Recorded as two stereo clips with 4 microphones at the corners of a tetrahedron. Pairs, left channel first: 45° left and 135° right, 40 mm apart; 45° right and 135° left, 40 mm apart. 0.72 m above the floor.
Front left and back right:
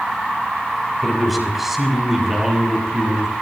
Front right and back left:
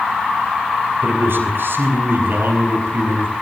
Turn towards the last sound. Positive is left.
turn(degrees=150)